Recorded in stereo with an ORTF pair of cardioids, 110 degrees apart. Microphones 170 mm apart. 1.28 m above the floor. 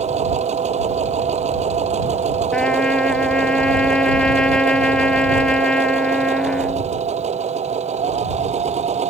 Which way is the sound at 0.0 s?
40° right.